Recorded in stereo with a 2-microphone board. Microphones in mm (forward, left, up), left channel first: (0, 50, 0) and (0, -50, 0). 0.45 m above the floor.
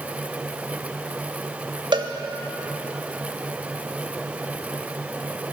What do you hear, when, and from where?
1.9 s a cowbell: 50° right (ahead or behind), 0.5 m